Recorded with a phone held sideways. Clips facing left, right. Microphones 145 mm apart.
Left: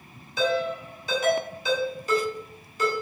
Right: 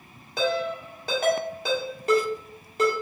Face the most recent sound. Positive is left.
turn(degrees=-60)  # may be behind; listen again after turning